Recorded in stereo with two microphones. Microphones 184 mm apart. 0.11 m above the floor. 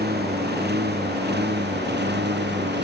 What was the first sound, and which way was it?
A lawn mower, 55° right (ahead or behind).